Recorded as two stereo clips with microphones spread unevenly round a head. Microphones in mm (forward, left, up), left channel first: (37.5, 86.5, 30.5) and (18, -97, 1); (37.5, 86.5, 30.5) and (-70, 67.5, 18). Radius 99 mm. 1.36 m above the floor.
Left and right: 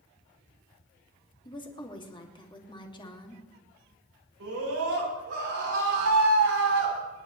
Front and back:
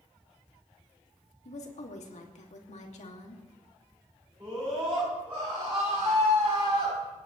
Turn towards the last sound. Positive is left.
turn(degrees=-105)